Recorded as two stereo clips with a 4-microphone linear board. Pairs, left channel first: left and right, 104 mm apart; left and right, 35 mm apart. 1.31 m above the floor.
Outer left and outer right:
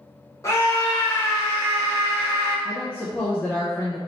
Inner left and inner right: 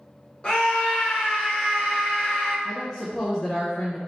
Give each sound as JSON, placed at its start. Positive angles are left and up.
{"t": 0.4, "sound": "a scream", "side_deg": 30, "distance_m": 1.6}
{"t": 2.6, "sound": "a woman speaking", "side_deg": 15, "distance_m": 0.6}